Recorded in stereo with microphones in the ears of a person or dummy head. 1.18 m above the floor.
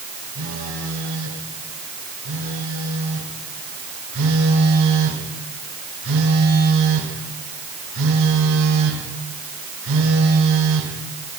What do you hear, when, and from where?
0.3 s a phone buzzing: 75° right (ahead or behind), 5 m